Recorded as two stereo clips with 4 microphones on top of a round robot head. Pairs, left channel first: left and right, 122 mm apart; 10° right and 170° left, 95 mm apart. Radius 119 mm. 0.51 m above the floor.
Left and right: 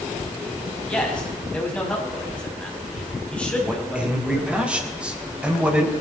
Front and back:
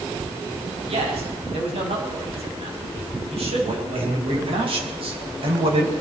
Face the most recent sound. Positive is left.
turn(degrees=-170)